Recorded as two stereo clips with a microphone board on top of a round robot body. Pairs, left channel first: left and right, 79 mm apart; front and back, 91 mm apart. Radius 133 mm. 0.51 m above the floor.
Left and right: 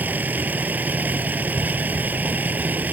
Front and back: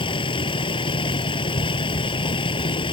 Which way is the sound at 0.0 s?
25° right.